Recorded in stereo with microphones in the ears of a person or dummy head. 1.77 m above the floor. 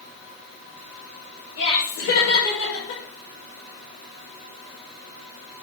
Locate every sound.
1.6 s laughter: 65° left (ahead or behind), 6.5 m; by 3.0 s 75° left (ahead or behind), 6.5 m